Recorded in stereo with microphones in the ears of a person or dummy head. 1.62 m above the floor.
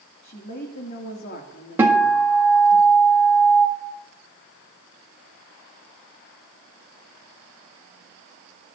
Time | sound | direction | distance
0.2 | a woman speaking | 55° left (ahead or behind) | 2 m
1.8 | a guitar | 15° right (ahead or behind) | 1.8 m